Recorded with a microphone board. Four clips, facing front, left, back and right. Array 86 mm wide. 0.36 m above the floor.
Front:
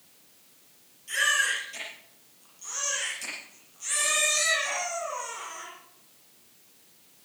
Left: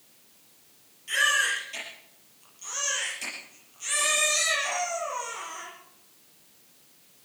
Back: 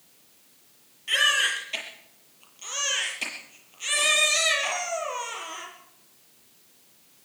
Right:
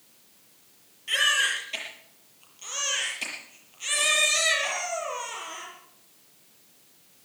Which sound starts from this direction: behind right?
A baby crying, at 1.1 s.